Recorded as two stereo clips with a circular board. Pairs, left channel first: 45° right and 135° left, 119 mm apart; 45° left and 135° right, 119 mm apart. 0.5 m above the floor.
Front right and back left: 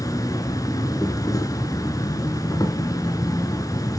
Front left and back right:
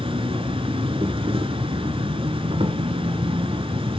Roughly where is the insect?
Right.